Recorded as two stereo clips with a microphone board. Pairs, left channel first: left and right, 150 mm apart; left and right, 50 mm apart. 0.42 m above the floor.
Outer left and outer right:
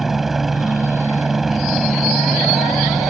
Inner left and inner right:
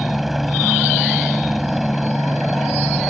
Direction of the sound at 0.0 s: Centre (ahead or behind).